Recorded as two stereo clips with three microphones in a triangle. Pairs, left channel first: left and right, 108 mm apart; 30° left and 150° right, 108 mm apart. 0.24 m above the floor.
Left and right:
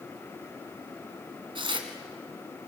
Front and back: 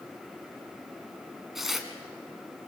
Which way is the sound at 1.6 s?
65° right.